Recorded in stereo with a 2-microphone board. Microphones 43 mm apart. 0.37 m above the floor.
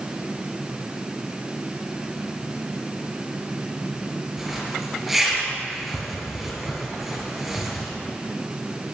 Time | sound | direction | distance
4.4 | a zipper | centre (ahead or behind) | 4 m